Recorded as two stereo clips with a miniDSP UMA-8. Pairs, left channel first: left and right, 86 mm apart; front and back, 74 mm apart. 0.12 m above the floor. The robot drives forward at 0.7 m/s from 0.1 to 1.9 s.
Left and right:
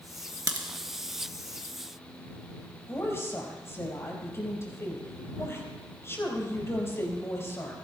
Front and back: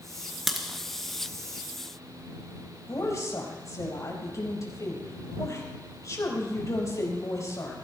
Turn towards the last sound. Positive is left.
turn(degrees=35)